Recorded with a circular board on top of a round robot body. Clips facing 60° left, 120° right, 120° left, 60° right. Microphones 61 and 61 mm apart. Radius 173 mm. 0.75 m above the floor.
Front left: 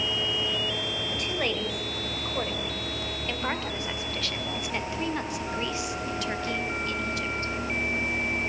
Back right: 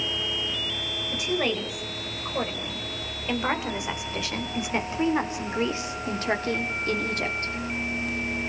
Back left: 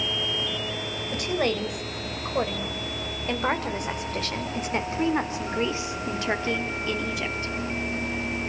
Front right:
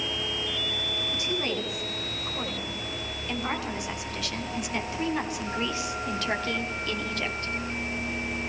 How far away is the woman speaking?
About 4.5 m.